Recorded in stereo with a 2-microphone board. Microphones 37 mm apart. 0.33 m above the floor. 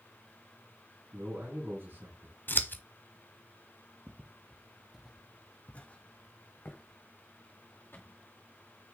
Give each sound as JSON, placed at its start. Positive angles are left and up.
{"t": 1.1, "sound": "a man speaking", "side_deg": -70, "distance_m": 5.0}
{"t": 2.5, "sound": "scissors", "side_deg": 60, "distance_m": 0.7}
{"t": 4.1, "sound": "footsteps", "side_deg": -50, "distance_m": 1.2}